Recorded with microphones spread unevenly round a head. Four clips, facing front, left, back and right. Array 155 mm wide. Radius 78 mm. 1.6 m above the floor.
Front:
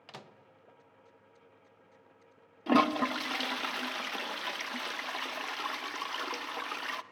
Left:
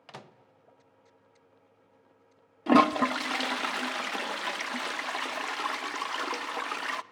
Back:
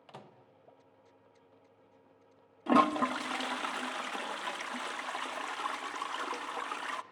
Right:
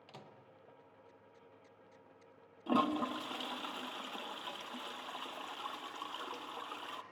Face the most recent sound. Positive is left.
turn(degrees=70)